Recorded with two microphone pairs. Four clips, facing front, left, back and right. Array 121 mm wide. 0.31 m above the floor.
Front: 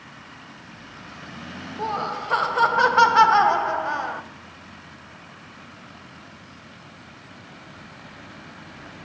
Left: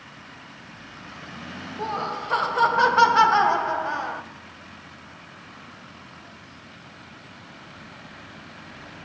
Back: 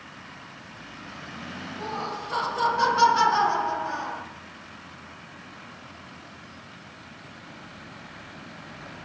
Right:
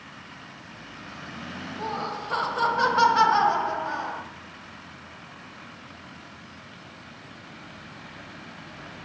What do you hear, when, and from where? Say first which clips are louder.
1.8 s laughter: left 3 dB, front 6 dB; 20° left, 1.5 m